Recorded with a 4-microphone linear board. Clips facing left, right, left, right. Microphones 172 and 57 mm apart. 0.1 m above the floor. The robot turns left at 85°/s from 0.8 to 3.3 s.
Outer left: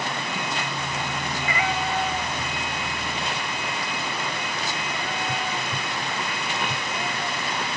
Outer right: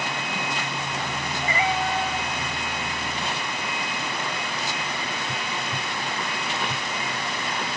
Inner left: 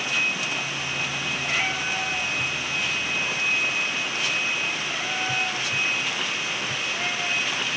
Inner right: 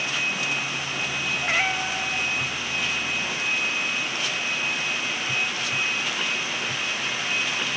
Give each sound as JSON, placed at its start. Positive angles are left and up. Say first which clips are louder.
{"t": 1.4, "sound": "a cat meowing", "louder": "outer right 3 dB, inner right 2 dB", "side_deg": -40, "distance_m": 3.5}